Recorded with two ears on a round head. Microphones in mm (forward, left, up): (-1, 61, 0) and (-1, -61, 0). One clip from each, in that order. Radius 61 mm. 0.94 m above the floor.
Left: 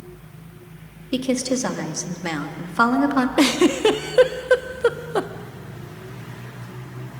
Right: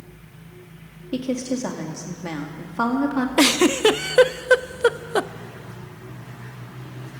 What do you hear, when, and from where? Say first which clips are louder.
1.1 s a woman speaking: left 4 dB; 40° left (ahead or behind), 2 m
3.4 s a giggle: right 2 dB; 30° right (ahead or behind), 0.5 m